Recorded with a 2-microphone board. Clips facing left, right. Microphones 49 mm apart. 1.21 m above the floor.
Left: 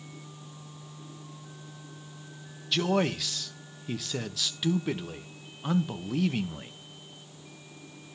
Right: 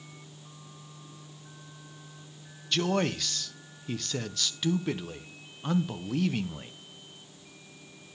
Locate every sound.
2.7 s a man speaking: 5° left (ahead or behind), 0.8 m